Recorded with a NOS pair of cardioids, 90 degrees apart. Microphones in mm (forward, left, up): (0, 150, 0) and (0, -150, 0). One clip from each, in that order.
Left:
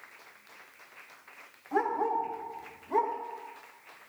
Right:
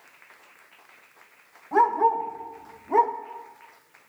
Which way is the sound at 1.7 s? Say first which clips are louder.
Right 9 dB; 35° right.